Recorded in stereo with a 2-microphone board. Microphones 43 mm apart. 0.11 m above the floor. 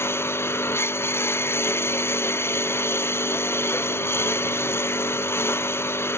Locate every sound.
0.0 s a lawn mower: 70° left (ahead or behind)